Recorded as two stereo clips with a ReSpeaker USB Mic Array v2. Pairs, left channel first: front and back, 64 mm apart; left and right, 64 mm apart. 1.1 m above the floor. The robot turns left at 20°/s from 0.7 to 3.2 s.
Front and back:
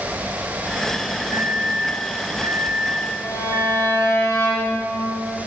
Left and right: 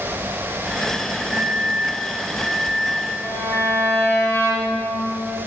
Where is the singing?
No singing in this recording.